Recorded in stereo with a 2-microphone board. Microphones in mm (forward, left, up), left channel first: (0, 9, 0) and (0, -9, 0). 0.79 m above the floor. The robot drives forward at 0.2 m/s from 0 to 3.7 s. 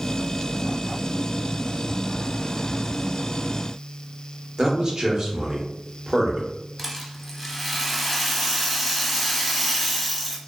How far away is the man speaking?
About 0.9 m.